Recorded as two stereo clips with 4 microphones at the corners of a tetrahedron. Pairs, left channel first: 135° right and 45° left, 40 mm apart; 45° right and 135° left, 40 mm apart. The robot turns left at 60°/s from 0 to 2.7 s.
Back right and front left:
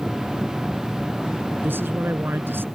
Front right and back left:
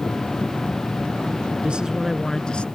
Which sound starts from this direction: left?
A man speaking, at 1.6 s.